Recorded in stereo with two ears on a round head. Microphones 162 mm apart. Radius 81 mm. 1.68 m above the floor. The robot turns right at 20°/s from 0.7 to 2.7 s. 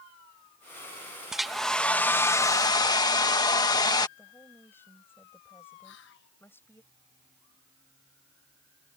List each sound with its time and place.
1.3 s a hair dryer: 5° right (ahead or behind); by 4.1 s 20° left (ahead or behind)
4.2 s a woman speaking: 10° left (ahead or behind)
5.8 s whispering: 70° left (ahead or behind)